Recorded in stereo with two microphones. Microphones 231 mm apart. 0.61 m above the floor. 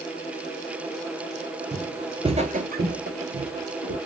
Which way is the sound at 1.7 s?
5° right (ahead or behind).